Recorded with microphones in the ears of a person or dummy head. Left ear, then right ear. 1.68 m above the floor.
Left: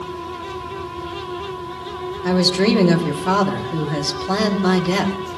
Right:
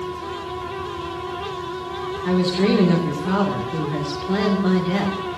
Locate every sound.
2.2 s a woman speaking: 80° left, 2 m